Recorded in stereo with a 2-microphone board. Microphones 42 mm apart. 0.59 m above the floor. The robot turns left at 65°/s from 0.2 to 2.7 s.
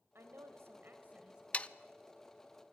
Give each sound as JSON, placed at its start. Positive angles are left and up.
{"t": 0.1, "sound": "a woman speaking", "azimuth_deg": -80, "distance_m": 2.5}
{"t": 1.5, "sound": "sawing", "side_deg": 30, "distance_m": 0.5}